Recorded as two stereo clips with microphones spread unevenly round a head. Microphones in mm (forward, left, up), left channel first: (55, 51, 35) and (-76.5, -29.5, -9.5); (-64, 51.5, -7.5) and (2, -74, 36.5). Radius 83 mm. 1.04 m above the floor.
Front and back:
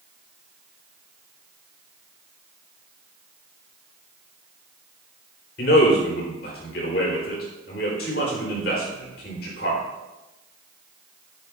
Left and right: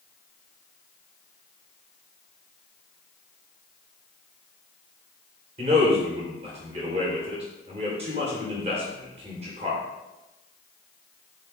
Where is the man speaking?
5° right, 3.5 m.